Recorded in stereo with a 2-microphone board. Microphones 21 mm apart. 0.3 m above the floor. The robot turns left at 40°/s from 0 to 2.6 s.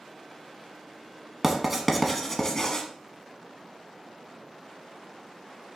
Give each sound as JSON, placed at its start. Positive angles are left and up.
{"t": 1.4, "sound": "writing", "side_deg": -20, "distance_m": 0.7}